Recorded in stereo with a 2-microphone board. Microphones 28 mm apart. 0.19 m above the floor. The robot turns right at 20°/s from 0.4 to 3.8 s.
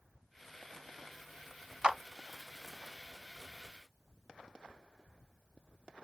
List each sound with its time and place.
1.8 s a clap: 30° right (ahead or behind), 1.1 m